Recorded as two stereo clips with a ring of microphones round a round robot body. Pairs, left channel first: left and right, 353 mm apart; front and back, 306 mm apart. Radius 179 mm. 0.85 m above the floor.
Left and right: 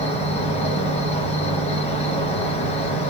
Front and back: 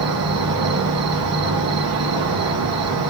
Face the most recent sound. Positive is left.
turn(degrees=160)